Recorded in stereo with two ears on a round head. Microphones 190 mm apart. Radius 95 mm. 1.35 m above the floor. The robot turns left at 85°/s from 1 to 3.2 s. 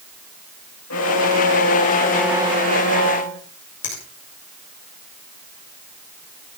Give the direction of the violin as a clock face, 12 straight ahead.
9 o'clock.